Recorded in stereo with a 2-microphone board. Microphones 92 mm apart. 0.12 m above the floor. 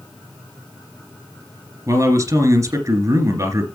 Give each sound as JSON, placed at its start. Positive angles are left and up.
{"t": 1.9, "sound": "a man speaking", "side_deg": -40, "distance_m": 2.0}